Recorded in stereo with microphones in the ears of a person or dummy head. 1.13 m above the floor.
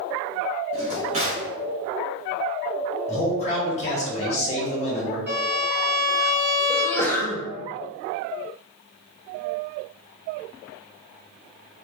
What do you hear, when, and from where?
0.7 s a drawer: 35° right (ahead or behind), 0.8 m
3.1 s a man speaking: 30° left (ahead or behind), 1.1 m
5.3 s a violin: 10° right (ahead or behind), 1.6 m
6.7 s a sneeze: 10° left (ahead or behind), 0.7 m